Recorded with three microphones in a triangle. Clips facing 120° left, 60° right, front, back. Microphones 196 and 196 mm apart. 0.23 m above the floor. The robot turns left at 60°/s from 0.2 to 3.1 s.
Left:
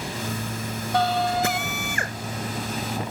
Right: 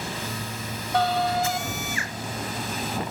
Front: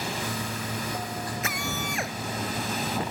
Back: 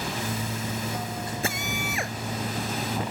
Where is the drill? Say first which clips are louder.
Left 1 dB, back 1 dB; 125° left; by 2.2 s 80° left.